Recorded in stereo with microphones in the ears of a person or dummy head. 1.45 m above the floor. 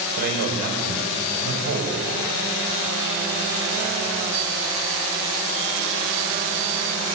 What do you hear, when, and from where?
0.2 s a man speaking: 55° right (ahead or behind), 4.5 m